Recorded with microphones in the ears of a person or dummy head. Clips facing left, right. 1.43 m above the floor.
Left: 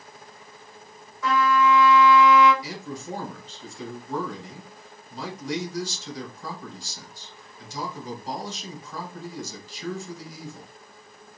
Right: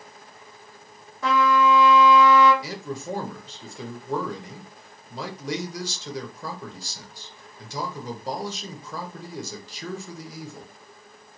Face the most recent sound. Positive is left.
turn(degrees=-60)  # may be behind; listen again after turning